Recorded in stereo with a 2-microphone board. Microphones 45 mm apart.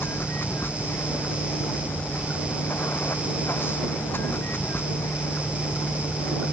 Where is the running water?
50° left (ahead or behind).